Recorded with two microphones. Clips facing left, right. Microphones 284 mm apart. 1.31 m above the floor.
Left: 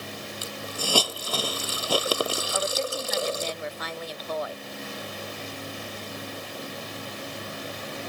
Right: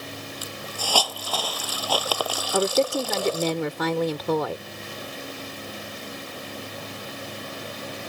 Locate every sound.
0.4 s a hiss: 25° left (ahead or behind)
2.5 s a woman speaking: 75° right (ahead or behind)